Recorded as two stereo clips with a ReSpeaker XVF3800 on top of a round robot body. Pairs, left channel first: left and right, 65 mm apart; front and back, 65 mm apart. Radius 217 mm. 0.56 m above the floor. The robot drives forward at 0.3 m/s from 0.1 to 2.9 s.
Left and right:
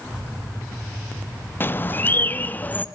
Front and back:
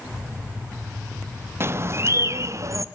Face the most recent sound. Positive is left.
turn(degrees=150)